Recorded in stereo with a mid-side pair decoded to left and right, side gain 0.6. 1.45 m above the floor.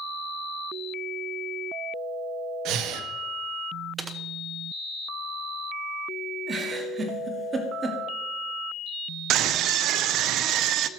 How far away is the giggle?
About 1.8 m.